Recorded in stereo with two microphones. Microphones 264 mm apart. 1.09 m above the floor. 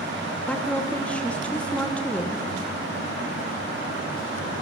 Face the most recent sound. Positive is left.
turn(degrees=5)  # may be behind; listen again after turning